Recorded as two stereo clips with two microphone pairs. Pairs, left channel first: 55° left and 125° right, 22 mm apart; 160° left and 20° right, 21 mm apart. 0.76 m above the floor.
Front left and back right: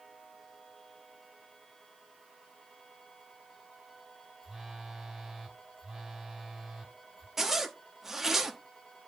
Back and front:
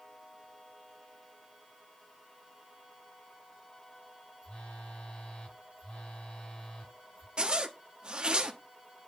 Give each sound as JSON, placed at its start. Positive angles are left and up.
{"t": 4.4, "sound": "a phone buzzing", "azimuth_deg": 165, "distance_m": 2.5}
{"t": 7.4, "sound": "a zipper", "azimuth_deg": -55, "distance_m": 1.0}